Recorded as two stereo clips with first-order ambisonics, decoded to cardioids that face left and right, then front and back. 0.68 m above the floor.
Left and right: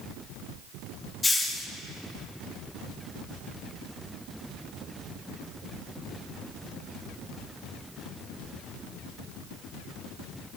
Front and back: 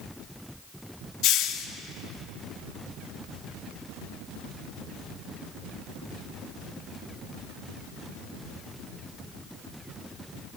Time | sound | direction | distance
1.2 | a hiss | 15° left | 1.1 m